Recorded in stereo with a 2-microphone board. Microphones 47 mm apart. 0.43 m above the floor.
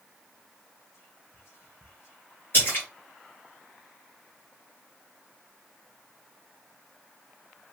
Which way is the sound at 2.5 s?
40° left (ahead or behind).